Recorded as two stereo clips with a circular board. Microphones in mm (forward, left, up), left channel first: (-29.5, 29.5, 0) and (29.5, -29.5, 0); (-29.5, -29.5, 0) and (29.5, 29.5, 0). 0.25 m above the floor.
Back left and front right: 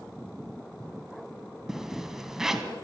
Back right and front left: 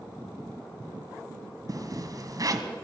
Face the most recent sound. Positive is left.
turn(degrees=40)